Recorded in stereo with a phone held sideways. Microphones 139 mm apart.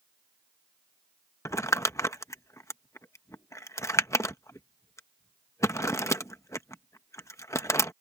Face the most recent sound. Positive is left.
turn(degrees=20)  # may be behind; listen again after turning